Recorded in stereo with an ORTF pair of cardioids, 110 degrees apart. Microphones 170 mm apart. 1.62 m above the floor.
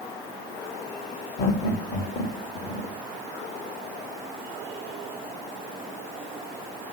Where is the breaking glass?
I don't hear breaking glass.